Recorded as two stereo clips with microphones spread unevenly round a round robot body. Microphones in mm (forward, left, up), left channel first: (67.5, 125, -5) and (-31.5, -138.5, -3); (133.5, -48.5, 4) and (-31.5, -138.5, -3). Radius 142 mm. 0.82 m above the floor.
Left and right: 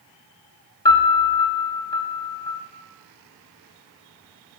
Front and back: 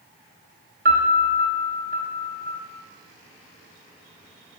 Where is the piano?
145° left, 0.6 m.